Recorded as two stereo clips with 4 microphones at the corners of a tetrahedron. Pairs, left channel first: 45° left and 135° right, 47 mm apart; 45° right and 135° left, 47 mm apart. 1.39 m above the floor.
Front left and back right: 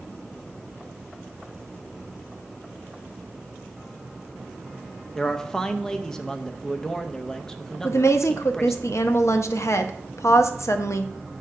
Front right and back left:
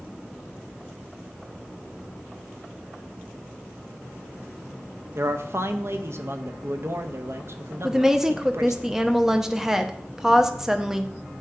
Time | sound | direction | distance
5.2 | a man speaking | 120° left | 0.6 m
7.8 | a woman speaking | 60° left | 0.7 m